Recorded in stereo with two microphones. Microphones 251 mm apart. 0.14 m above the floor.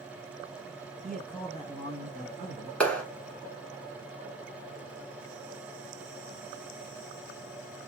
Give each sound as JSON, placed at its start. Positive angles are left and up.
{"t": 1.0, "sound": "a man speaking", "side_deg": 0, "distance_m": 1.1}
{"t": 2.8, "sound": "a clap", "side_deg": 5, "distance_m": 1.2}